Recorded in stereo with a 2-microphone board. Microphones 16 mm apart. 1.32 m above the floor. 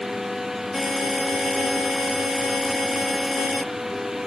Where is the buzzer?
5° right (ahead or behind), 0.8 m.